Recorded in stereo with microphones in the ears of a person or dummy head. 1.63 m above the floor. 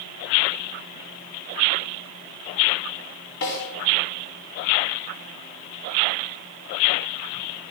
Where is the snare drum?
65° left (ahead or behind), 7.5 m.